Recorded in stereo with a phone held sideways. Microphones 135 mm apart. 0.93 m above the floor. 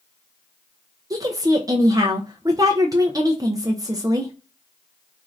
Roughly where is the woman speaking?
Right.